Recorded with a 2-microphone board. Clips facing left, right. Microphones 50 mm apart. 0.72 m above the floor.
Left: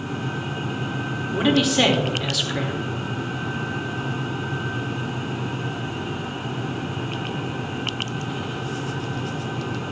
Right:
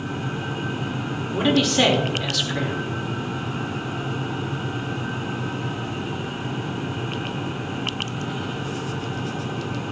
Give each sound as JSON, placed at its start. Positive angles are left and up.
{"t": 1.3, "sound": "a man speaking", "side_deg": 0, "distance_m": 1.9}